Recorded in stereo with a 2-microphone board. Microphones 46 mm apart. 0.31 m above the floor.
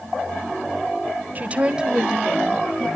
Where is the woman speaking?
35° right (ahead or behind), 1.2 m; by 2.9 s 15° left (ahead or behind), 1.8 m.